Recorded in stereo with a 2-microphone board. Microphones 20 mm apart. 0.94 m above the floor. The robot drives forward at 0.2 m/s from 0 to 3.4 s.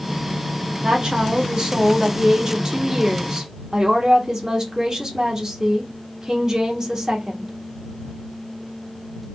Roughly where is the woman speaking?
Right.